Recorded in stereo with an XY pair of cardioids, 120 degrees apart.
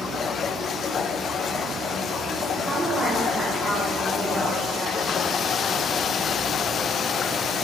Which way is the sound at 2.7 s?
15° right.